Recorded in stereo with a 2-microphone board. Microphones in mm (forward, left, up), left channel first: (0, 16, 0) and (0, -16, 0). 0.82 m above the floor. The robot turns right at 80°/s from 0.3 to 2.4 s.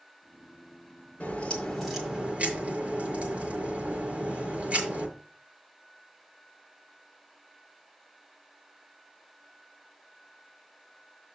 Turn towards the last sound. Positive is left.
turn(degrees=-140)